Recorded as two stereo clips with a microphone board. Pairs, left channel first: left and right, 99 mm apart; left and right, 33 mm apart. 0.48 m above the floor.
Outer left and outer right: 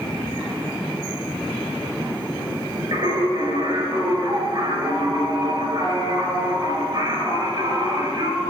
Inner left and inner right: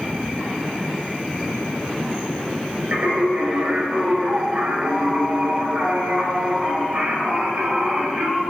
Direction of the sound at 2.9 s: 40° right (ahead or behind).